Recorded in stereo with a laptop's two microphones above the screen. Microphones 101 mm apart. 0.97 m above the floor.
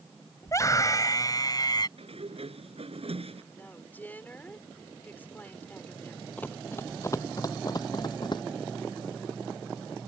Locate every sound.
0.4 s a scream: 30° left (ahead or behind); by 1.9 s 45° left (ahead or behind)
2.0 s a sliding door: 75° right (ahead or behind)
3.5 s a woman speaking: 20° left (ahead or behind)
6.4 s running footsteps: 15° left (ahead or behind); by 8.4 s 50° left (ahead or behind)